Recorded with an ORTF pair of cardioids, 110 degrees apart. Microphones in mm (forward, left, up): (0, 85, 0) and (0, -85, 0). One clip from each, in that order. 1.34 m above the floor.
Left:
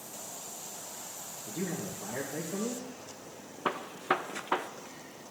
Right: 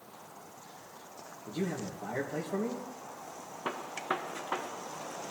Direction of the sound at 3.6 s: 20° left.